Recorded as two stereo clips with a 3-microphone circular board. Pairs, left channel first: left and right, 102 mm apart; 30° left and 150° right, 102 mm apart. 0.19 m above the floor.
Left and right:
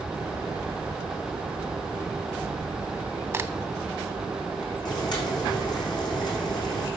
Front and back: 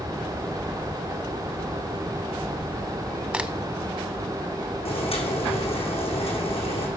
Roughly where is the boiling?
Ahead left.